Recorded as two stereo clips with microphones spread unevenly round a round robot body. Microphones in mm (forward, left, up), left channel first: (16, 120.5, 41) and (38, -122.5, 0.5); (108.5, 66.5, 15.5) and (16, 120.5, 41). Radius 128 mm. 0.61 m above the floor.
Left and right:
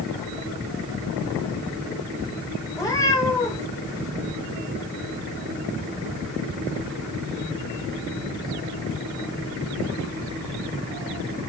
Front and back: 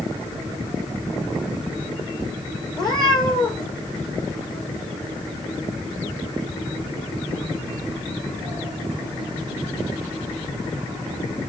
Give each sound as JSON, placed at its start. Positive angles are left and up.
{"t": 2.8, "sound": "a cat meowing", "azimuth_deg": 20, "distance_m": 6.5}